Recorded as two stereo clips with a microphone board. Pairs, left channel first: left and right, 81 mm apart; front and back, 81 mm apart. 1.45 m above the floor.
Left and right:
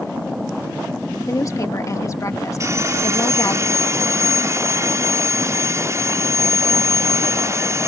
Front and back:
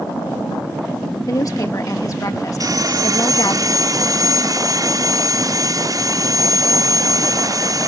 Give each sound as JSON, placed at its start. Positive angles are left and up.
{"t": 1.3, "sound": "a woman speaking", "azimuth_deg": 40}
{"t": 2.6, "sound": "sawing", "azimuth_deg": -140}